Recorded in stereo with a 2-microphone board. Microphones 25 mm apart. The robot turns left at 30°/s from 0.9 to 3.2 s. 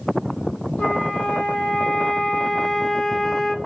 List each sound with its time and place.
0.8 s a flute: 90° left, 0.9 m; by 3.5 s 20° left, 0.9 m